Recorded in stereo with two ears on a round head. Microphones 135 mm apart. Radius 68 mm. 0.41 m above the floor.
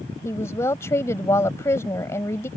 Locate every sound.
0.2 s a woman speaking: 20° left (ahead or behind)